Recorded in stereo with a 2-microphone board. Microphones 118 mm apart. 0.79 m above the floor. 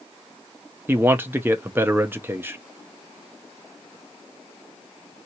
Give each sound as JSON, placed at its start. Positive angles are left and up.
{"t": 0.9, "sound": "a man speaking", "side_deg": -20, "distance_m": 0.6}